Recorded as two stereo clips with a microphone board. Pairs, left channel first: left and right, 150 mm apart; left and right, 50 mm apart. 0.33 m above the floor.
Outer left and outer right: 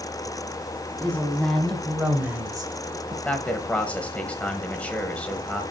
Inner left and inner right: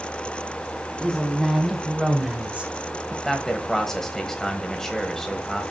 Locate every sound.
1.0 s a woman speaking: 10° left (ahead or behind), 2.5 m; by 3.1 s 35° right (ahead or behind), 1.2 m
3.2 s a man speaking: 10° left (ahead or behind), 1.2 m